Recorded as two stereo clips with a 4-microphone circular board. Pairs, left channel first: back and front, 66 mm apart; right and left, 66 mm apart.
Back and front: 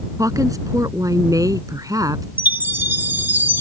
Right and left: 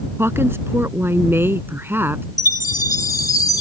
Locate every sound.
0.2 s a woman speaking: 35° left; by 2.2 s 30° left
2.4 s a chime: 60° right